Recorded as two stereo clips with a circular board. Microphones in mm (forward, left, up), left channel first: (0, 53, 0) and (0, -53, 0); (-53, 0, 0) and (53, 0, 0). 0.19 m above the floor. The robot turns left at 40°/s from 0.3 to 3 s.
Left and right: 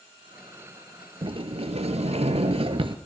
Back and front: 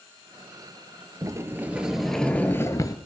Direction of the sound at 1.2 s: 55° right.